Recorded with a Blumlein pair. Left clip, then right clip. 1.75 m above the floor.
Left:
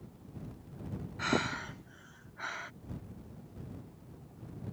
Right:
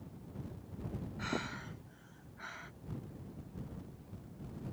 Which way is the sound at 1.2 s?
65° left.